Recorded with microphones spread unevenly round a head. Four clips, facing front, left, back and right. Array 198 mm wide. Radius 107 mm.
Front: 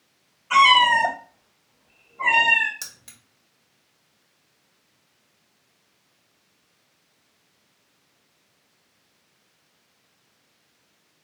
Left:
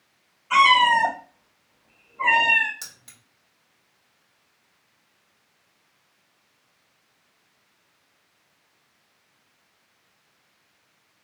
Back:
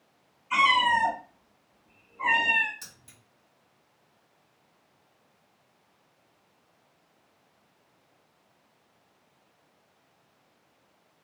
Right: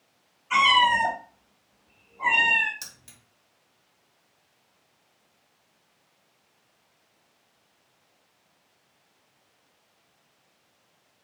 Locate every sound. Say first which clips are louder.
0.5 s a cat meowing: left 4 dB, front 7 dB; 15° left, 1.8 m; by 2.7 s 75° left, 1.8 m
2.8 s keys jangling: left 1 dB, front 6 dB; 20° left, 1.4 m